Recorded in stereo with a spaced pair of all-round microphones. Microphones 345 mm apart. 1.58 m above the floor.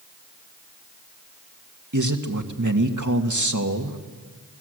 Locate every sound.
1.9 s a man speaking: 60° right (ahead or behind), 1.9 m